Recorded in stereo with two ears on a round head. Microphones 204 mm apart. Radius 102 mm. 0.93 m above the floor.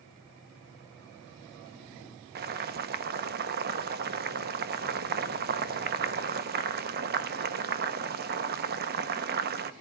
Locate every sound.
2.4 s boiling: 45° right (ahead or behind), 1.1 m